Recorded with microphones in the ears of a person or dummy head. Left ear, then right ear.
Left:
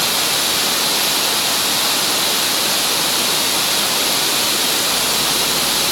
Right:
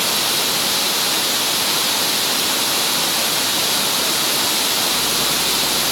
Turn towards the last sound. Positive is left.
No sound to turn to.